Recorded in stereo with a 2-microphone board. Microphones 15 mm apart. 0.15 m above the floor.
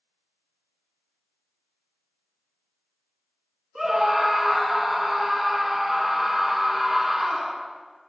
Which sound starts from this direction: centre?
A scream, at 3.8 s.